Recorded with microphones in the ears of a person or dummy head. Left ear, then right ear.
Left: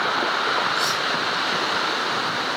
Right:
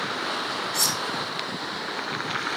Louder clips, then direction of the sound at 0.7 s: Left 3 dB; 50° right (ahead or behind).